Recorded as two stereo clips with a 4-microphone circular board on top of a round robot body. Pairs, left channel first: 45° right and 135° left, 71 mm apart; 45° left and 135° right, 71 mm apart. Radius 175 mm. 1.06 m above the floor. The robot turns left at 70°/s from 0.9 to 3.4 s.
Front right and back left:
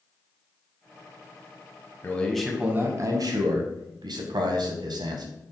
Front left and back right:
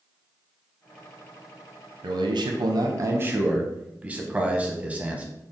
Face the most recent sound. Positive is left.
turn(degrees=155)